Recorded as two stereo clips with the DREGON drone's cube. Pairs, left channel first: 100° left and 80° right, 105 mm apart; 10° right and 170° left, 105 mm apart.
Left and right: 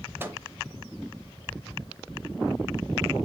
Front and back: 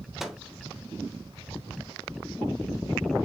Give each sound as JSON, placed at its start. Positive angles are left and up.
{"t": 0.2, "sound": "a microwave", "azimuth_deg": -105, "distance_m": 0.7}